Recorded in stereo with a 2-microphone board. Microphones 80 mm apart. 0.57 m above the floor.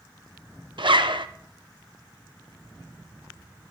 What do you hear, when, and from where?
0.8 s a zipper: 75° right (ahead or behind), 0.6 m